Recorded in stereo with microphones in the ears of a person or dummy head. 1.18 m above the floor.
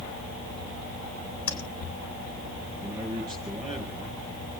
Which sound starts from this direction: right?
A man speaking, at 2.8 s.